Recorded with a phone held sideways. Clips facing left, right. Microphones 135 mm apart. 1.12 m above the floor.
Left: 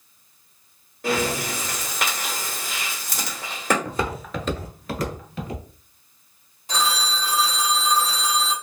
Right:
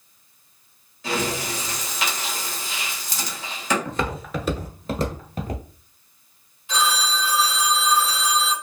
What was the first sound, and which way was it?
Breathing, 55° left (ahead or behind).